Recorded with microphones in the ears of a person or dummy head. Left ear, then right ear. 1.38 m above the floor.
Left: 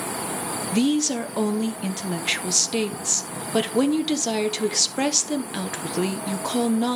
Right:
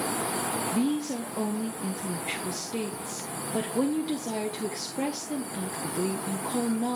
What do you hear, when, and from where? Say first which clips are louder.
0.7 s a woman speaking: left 6 dB; 50° left (ahead or behind), 1.0 m